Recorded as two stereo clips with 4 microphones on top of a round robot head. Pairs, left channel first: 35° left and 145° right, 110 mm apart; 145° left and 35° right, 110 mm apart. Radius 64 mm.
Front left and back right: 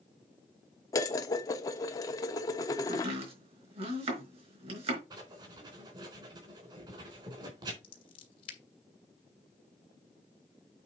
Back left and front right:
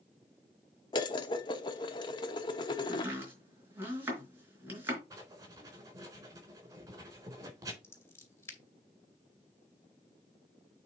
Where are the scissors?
75° left, 2.5 m.